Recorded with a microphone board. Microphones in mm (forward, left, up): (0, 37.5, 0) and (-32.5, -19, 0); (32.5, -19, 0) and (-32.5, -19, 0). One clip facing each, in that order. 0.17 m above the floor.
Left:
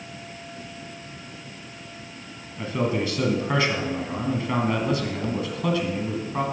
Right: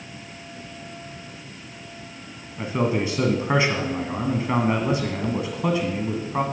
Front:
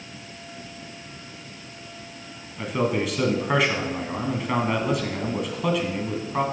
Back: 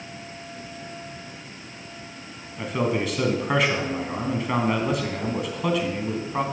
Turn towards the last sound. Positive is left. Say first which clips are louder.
# right 2 dB, even
turn(degrees=-90)